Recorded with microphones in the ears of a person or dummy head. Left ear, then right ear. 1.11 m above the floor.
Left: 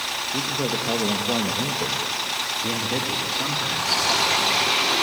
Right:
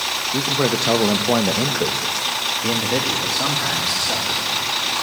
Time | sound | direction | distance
0.3 | a man speaking | 65° right (ahead or behind) | 1.3 m